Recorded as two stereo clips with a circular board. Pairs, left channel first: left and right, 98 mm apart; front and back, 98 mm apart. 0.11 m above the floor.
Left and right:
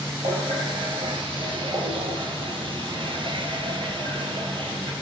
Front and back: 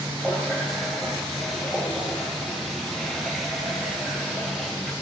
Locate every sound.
0.2 s a running tap: 90° right, 1.9 m